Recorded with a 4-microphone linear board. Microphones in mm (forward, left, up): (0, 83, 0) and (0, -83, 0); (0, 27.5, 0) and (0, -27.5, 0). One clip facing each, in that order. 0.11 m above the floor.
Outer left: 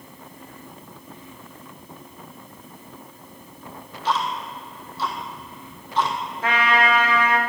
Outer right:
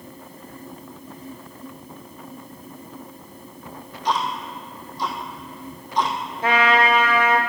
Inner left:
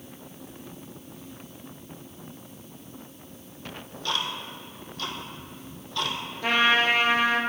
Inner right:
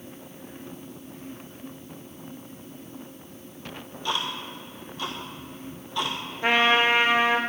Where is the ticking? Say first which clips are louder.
Outer right 1 dB, inner right 1 dB; 15° right (ahead or behind), 1.3 m.